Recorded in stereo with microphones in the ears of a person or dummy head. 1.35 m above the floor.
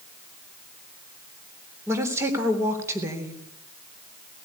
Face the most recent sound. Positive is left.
turn(degrees=-15)  # may be behind; listen again after turning